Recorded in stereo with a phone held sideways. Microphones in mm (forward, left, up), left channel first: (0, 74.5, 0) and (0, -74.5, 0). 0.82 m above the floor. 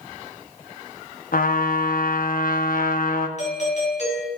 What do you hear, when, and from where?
1.3 s a trumpet: 70° left (ahead or behind), 0.7 m
3.4 s a doorbell: 50° left (ahead or behind), 2.5 m